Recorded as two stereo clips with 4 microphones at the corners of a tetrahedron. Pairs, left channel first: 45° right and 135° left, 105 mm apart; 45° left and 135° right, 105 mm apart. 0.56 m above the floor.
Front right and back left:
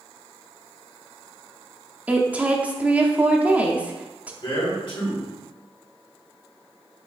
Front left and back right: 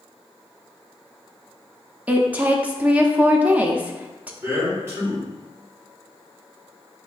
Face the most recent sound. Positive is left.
turn(degrees=-75)